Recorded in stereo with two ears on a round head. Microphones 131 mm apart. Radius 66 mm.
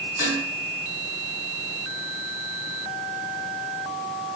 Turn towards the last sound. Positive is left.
turn(degrees=30)  # may be behind; listen again after turning